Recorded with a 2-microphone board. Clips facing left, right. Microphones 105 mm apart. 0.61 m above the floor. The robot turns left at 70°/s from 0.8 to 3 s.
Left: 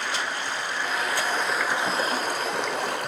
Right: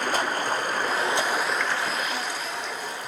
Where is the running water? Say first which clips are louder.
Right 4 dB; 130° right, 2 m; by 3.1 s 75° left, 2 m.